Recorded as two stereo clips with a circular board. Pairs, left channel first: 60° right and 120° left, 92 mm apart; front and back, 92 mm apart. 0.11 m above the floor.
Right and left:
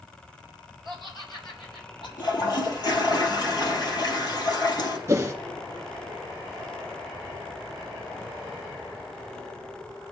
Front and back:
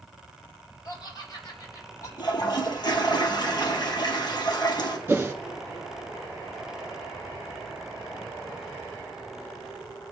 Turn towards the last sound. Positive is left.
turn(degrees=140)